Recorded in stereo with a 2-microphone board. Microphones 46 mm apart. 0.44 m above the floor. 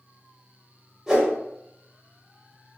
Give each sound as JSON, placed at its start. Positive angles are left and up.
{"t": 1.1, "sound": "a whoosh", "side_deg": -15, "distance_m": 0.9}